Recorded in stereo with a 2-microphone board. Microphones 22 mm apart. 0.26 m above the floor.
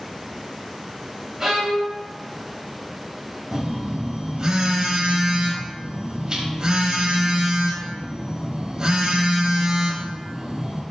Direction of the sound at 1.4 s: 15° right (ahead or behind).